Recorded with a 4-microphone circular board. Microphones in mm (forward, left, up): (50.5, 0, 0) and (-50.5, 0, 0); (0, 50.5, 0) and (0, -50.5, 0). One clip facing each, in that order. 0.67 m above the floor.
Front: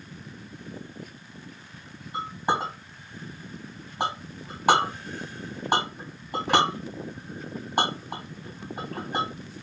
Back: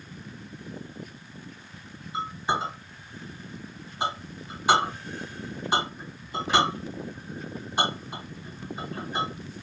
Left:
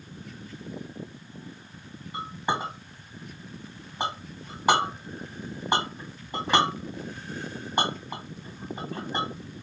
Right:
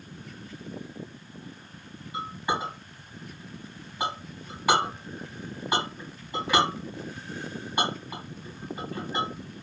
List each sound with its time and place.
2.1 s a clink: 30° left, 2 m